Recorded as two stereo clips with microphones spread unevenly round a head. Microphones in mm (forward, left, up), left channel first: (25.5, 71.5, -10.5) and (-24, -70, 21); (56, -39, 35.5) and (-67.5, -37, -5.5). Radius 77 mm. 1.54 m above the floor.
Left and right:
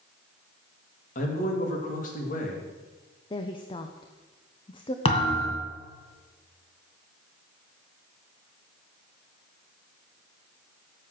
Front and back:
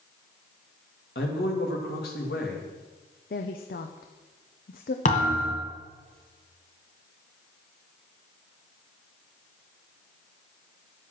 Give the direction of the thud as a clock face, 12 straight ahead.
12 o'clock.